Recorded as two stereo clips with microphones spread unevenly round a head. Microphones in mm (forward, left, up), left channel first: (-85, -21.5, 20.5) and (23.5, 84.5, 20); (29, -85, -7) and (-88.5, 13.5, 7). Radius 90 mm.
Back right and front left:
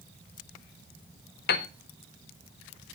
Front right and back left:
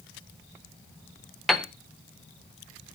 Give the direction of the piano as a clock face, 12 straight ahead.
4 o'clock.